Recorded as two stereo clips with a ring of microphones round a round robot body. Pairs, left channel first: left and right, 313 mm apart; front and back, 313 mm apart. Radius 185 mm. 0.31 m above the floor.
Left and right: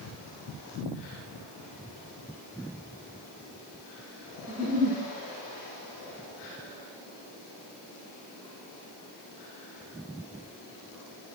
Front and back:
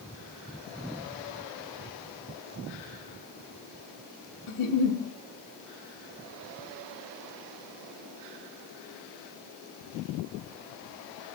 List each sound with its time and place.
4.5 s a giggle: 25° right, 0.7 m